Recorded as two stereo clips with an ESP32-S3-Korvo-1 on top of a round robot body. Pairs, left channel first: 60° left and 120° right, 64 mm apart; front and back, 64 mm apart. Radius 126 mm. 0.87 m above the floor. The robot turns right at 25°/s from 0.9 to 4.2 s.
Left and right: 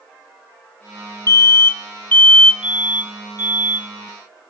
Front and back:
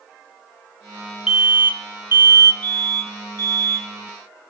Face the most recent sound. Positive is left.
turn(degrees=-155)